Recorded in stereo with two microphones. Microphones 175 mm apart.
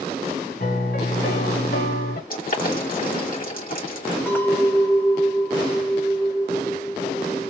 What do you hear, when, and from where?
0.6 s a piano: 65° left (ahead or behind), 1.9 m
2.3 s boiling: 55° left (ahead or behind), 3.5 m
4.3 s a clink: 10° left (ahead or behind), 2 m